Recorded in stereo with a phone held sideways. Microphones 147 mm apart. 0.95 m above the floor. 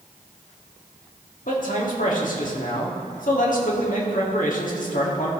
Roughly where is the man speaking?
Left.